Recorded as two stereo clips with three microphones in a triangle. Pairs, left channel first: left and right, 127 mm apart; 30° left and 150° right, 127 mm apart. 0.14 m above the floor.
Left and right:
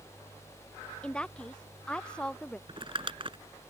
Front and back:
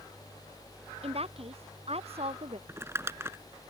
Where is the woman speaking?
170° left.